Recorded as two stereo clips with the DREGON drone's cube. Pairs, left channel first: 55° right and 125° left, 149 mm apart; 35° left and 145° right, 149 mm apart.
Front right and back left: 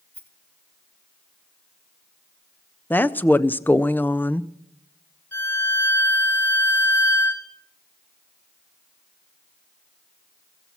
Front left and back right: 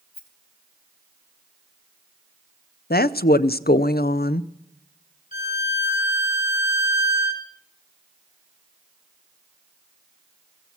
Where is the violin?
20° left, 1.9 m.